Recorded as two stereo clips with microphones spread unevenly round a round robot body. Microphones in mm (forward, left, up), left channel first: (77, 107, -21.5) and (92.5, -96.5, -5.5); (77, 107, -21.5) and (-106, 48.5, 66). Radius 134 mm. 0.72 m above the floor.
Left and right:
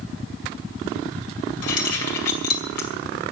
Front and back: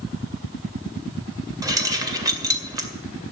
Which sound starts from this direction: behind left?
Keys jangling, at 1.6 s.